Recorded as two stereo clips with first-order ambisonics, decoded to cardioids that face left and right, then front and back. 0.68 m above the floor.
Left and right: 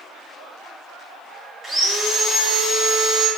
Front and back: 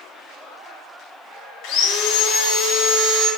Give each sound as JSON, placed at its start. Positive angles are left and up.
{"t": 1.6, "sound": "sawing", "azimuth_deg": -10, "distance_m": 0.7}